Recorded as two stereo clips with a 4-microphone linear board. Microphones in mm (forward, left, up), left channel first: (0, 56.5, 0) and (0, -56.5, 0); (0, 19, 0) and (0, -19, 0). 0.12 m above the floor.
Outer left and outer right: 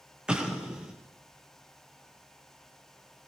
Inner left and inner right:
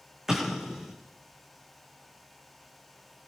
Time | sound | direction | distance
0.3 | an explosion | 10° right (ahead or behind) | 3.5 m